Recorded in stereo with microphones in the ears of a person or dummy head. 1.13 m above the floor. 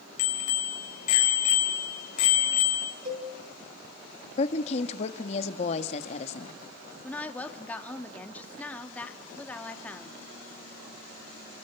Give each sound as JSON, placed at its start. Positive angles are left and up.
{"t": 0.2, "sound": "a bicycle bell", "side_deg": 50, "distance_m": 4.0}
{"t": 3.0, "sound": "a cowbell", "side_deg": -40, "distance_m": 3.5}
{"t": 4.4, "sound": "a woman speaking", "side_deg": 40, "distance_m": 1.5}
{"t": 7.0, "sound": "a woman speaking", "side_deg": 10, "distance_m": 2.0}